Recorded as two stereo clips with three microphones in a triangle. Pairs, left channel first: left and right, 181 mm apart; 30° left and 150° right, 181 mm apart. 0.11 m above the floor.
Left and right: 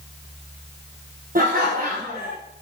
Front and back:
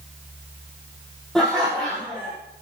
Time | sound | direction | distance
1.4 | laughter | 55° right | 3.5 m